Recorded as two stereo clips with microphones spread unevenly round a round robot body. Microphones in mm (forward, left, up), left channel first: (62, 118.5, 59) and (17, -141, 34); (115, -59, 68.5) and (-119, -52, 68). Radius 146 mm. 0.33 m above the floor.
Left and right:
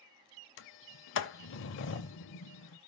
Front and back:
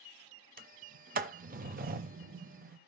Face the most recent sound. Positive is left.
turn(degrees=125)